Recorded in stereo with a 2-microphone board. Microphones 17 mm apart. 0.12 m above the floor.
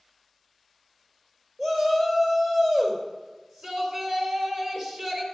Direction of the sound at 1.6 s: 50° right (ahead or behind).